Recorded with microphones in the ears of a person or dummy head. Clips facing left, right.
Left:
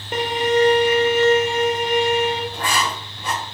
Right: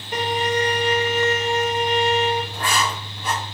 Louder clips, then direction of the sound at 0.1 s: Left 4 dB; 45° left (ahead or behind).